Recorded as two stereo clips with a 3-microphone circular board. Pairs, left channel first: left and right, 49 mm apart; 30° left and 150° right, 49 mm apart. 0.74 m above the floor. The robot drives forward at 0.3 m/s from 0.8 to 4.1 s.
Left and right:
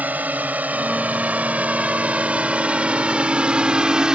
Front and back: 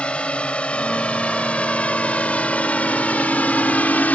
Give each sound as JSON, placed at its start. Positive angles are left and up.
{"t": 0.0, "sound": "a drone", "azimuth_deg": -35}